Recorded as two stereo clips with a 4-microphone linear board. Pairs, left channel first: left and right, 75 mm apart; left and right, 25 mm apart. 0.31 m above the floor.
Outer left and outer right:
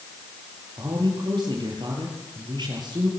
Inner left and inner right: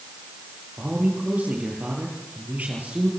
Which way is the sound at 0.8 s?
75° right (ahead or behind).